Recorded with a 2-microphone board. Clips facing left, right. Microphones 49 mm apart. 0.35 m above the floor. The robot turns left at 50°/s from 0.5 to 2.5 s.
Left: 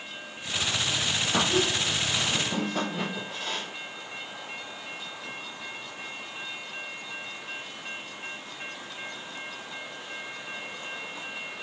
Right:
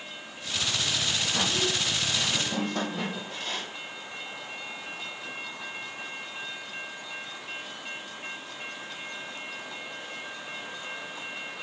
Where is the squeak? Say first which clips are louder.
Left 5 dB; 65° left, 4.5 m; by 3.7 s 5° left, 4.5 m.